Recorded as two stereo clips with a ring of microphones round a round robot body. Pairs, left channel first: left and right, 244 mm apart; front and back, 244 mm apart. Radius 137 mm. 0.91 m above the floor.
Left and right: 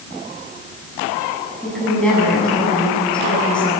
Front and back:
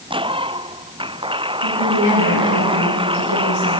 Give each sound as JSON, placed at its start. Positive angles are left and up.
{"t": 1.6, "sound": "a woman speaking", "azimuth_deg": 5, "distance_m": 7.5}